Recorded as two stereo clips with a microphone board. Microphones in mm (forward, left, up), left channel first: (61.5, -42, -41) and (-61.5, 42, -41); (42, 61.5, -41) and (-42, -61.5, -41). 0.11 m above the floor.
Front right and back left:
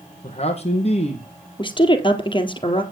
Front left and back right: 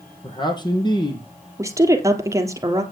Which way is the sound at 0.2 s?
Straight ahead.